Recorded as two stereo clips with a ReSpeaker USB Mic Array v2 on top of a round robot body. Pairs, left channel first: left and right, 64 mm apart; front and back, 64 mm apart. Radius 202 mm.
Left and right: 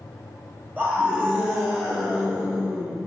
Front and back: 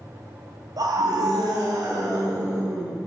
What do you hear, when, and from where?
0.8 s a scream: 155° right, 1.8 m; by 3.0 s 160° right, 3.5 m